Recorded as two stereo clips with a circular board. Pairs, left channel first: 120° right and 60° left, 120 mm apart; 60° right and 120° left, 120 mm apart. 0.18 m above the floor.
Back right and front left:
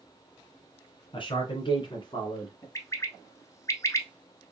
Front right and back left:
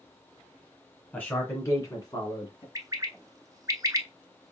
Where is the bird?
175° left, 0.5 m.